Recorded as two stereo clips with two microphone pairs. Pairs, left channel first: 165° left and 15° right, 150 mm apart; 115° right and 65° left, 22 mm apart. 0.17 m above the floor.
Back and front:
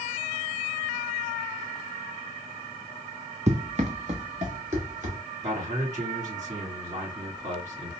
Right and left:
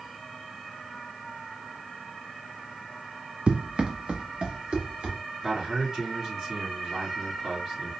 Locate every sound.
3.5 s running footsteps: 30° left, 0.5 m; by 5.2 s 20° left, 2 m
5.4 s a man speaking: 5° left, 3 m